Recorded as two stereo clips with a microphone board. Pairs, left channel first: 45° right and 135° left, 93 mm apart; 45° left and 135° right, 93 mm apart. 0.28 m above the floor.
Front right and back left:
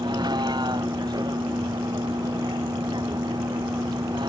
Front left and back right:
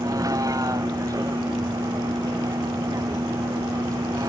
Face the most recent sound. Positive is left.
turn(degrees=175)